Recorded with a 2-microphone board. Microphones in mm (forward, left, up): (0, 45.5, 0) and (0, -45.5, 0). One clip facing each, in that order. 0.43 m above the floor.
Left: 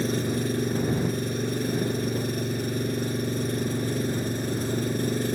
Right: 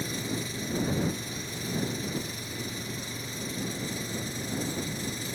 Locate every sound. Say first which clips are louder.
0.0 s an engine running: left 8 dB; 55° left (ahead or behind)